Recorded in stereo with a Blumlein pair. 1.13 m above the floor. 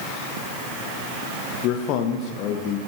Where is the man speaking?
40° left, 1.0 m.